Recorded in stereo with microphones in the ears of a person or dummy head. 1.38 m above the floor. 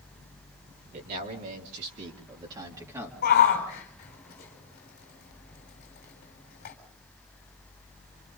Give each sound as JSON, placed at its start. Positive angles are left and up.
{"t": 0.9, "sound": "a man speaking", "side_deg": -55, "distance_m": 3.5}
{"t": 3.2, "sound": "a shout", "side_deg": 50, "distance_m": 4.0}